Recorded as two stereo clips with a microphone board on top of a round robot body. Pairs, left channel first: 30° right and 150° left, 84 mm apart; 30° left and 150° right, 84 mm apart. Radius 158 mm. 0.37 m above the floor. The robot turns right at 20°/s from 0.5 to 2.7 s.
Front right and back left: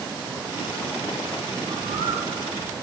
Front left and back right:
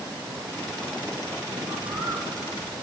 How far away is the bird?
About 4.5 m.